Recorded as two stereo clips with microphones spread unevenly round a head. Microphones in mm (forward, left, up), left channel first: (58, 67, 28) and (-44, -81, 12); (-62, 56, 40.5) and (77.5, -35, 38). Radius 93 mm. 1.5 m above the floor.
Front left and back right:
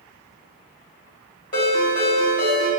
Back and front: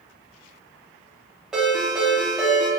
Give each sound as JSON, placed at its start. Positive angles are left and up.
{"t": 1.5, "sound": "a ringtone", "azimuth_deg": 50, "distance_m": 1.1}